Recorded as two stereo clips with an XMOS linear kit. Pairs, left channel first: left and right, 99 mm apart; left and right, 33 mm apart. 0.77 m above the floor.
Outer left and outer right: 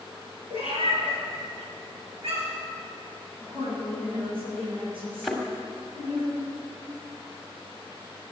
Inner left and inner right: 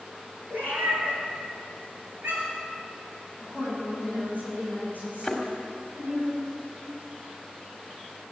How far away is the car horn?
No car horn in this recording.